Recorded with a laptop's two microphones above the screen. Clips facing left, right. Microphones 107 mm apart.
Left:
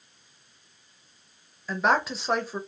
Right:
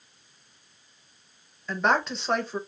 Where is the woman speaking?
5° left (ahead or behind), 0.6 m.